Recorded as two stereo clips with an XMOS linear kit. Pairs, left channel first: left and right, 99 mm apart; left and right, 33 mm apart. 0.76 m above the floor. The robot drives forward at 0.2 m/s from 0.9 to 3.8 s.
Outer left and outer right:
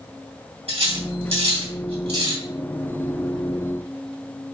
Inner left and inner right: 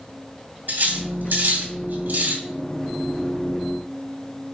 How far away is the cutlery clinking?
About 3 m.